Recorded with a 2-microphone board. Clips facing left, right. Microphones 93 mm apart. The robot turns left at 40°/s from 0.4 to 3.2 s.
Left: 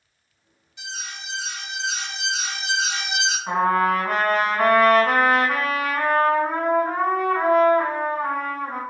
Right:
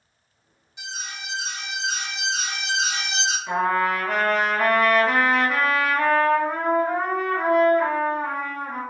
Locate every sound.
0.8 s an alarm: 150° right, 1.6 m; by 3.4 s 110° left, 1.6 m
3.5 s a trumpet: 50° left (ahead or behind), 1.6 m